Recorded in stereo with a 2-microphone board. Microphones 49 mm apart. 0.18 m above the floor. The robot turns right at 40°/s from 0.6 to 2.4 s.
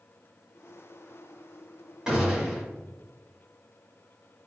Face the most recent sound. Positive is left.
turn(degrees=-10)  # may be behind; listen again after turning